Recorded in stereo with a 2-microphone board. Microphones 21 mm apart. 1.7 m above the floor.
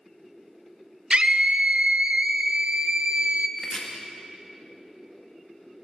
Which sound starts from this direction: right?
A scream, at 1.1 s.